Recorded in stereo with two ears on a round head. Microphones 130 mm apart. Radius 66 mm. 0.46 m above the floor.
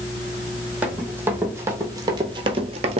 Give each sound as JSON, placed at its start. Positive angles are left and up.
{"t": 0.8, "sound": "running footsteps", "side_deg": -10, "distance_m": 1.2}